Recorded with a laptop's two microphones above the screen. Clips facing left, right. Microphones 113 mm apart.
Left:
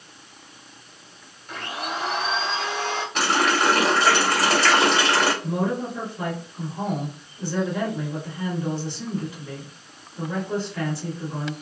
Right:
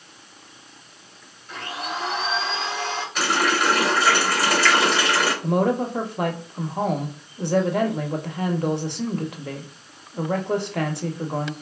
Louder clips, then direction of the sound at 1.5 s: Even; 75° left (ahead or behind).